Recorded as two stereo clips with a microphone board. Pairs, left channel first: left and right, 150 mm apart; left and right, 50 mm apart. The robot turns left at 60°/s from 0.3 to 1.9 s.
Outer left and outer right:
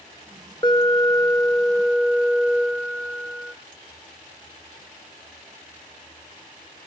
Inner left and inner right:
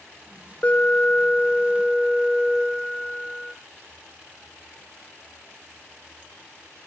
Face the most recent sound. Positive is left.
turn(degrees=5)  # may be behind; listen again after turning